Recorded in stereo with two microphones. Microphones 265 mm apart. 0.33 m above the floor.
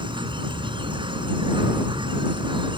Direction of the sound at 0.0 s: 20° right (ahead or behind).